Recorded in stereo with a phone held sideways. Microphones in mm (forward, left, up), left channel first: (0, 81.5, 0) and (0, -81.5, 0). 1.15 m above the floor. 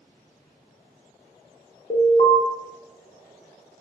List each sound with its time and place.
1.9 s an alarm: 45° left (ahead or behind), 0.6 m